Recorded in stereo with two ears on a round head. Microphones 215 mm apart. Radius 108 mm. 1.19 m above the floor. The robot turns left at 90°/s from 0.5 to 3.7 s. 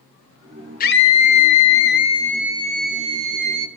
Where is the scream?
145° left, 1.9 m; by 3.7 s 115° right, 1.9 m.